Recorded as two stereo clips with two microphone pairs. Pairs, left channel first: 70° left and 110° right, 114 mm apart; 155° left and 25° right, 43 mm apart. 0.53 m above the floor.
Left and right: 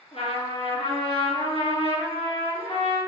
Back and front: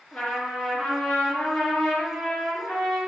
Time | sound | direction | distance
0.1 | a trumpet | 100° left | 3 m